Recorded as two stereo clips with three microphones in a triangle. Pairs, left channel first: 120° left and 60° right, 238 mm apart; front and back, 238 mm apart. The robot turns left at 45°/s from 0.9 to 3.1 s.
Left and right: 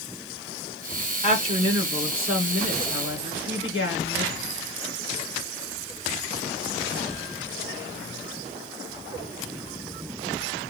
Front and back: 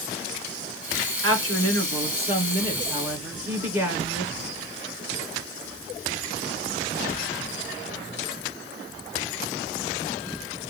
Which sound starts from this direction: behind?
A woman speaking, at 1.2 s.